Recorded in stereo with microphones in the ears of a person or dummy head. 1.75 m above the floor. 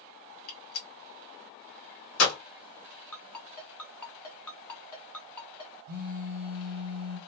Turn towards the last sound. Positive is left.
turn(degrees=-55)  # may be behind; listen again after turning